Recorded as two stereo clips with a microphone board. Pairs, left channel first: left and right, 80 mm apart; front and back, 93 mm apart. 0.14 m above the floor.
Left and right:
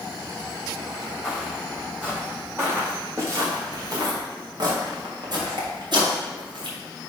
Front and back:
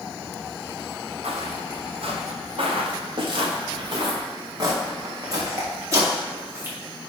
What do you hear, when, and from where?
1.2 s footsteps: 170° right, 2.5 m; by 6.8 s 115° right, 4.5 m